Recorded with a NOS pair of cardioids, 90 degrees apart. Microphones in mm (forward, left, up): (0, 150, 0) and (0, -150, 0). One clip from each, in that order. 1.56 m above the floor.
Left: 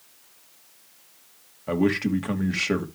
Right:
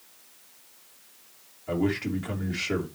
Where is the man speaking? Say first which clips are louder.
Left 4 dB; 50° left, 3 m.